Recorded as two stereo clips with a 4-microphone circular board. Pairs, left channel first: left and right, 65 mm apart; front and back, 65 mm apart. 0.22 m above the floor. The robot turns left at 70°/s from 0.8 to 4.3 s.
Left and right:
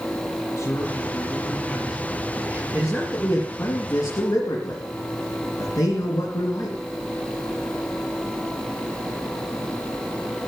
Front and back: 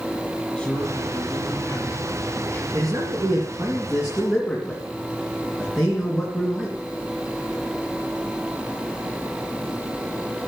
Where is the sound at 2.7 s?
160° right, 3.5 m; by 6.8 s 90° left, 3.5 m.